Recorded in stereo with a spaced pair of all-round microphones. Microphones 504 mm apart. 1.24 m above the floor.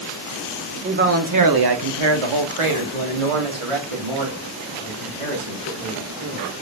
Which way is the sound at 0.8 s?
15° right (ahead or behind).